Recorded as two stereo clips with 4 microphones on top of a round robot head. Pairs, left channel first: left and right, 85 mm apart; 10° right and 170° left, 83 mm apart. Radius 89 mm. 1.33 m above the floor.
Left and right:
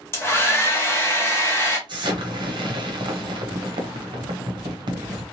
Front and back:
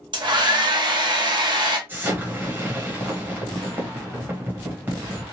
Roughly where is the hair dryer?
Behind left.